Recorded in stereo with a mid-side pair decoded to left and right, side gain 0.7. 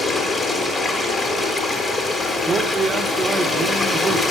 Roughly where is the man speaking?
Ahead.